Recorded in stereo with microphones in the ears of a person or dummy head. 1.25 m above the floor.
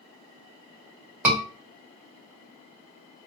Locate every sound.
1.2 s a scream: 10° right (ahead or behind), 1.8 m